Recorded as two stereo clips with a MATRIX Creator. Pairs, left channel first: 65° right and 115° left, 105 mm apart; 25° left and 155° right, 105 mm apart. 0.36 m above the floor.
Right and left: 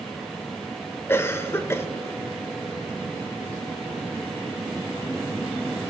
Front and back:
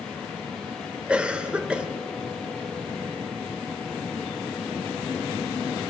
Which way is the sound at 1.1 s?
95° right.